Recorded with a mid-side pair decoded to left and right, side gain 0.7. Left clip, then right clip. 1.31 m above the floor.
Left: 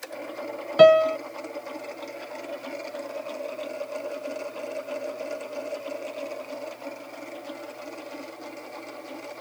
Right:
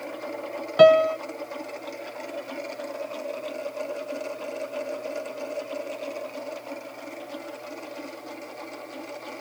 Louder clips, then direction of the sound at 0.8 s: Even; 5° left.